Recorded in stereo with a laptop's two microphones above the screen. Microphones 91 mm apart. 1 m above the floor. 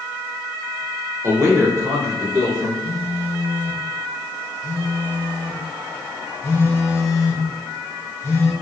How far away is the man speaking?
About 0.9 m.